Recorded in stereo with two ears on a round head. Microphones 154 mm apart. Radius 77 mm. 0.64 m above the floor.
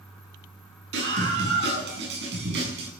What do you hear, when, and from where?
0.9 s a scream: 80° right, 8 m; by 2.9 s 75° right (ahead or behind), 6.5 m